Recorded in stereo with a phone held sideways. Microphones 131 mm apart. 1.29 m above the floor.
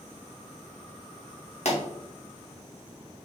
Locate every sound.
1.6 s a pop: 60° left (ahead or behind), 1.6 m